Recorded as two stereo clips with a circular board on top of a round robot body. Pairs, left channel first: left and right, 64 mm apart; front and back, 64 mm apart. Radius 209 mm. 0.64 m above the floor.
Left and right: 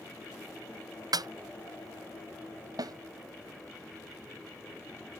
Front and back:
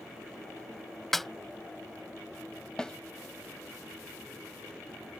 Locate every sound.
1.1 s a snare drum: 85° right
2.8 s a snare drum: 80° right